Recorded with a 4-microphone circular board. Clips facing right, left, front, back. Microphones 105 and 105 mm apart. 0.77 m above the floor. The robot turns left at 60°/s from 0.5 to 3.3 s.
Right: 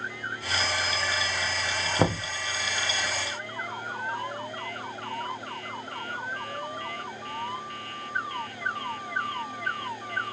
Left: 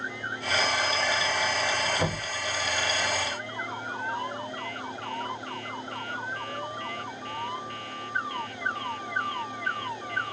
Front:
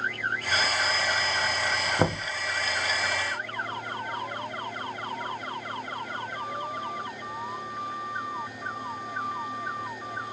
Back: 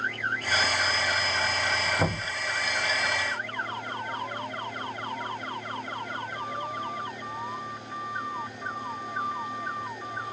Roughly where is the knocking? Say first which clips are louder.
Right 4 dB, front 6 dB; ahead right.